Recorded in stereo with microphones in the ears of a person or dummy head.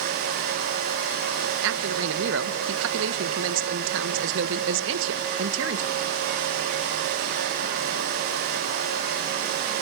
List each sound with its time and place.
1.6 s a man speaking: 60° right (ahead or behind), 1.1 m